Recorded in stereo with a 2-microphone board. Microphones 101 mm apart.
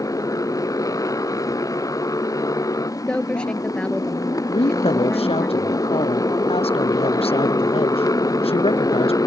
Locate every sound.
0.0 s a motorcycle: 35° left (ahead or behind)
3.1 s a woman speaking: 10° left (ahead or behind)
4.5 s a woman speaking: 75° left (ahead or behind)